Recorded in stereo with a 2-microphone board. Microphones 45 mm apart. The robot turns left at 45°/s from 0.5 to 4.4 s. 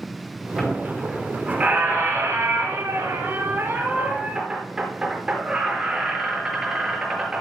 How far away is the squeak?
About 5 m.